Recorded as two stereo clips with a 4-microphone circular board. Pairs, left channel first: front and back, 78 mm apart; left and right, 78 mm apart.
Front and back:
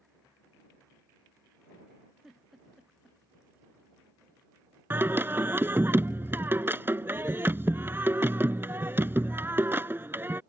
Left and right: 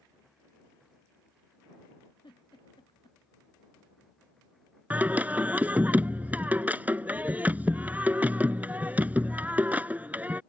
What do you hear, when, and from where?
2.2 s a giggle: 95° left
4.9 s singing: 145° right